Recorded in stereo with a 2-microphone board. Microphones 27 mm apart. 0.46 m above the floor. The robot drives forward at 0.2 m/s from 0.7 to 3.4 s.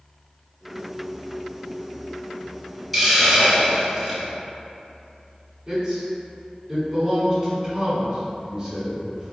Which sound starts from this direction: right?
A man speaking, at 5.7 s.